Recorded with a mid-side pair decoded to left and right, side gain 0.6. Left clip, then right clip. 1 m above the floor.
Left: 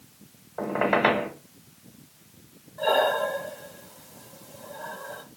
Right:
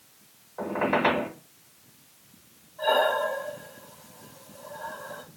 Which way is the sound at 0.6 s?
35° left.